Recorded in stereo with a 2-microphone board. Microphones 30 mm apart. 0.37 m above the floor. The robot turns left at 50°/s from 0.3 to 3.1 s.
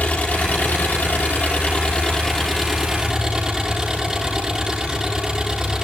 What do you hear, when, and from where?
0.0 s an engine running: 120° left, 8 m; by 5.8 s 20° right, 8 m